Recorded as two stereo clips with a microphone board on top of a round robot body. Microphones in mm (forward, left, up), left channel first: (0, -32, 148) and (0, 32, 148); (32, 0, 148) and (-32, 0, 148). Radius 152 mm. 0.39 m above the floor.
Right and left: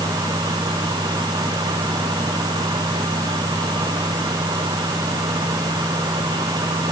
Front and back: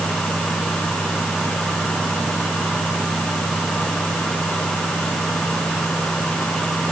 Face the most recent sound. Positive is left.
No sound to turn to.